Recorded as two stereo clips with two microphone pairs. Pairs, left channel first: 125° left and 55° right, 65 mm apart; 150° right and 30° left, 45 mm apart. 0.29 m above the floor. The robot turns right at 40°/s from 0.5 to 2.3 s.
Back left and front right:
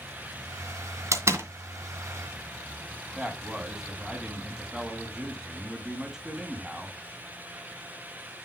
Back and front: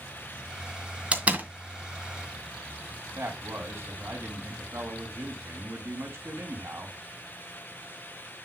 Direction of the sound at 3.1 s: 25° left.